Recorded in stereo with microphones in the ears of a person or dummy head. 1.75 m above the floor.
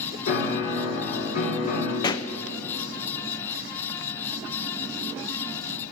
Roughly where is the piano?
Left.